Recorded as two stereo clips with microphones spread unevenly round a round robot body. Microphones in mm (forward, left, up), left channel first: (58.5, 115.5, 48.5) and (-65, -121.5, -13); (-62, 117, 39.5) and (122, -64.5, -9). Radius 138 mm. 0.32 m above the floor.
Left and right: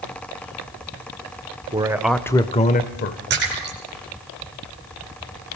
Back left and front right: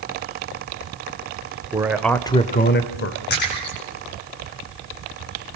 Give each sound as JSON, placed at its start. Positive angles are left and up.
{"t": 1.7, "sound": "a man speaking", "azimuth_deg": -90, "distance_m": 1.3}
{"t": 3.3, "sound": "a splash", "azimuth_deg": -170, "distance_m": 8.5}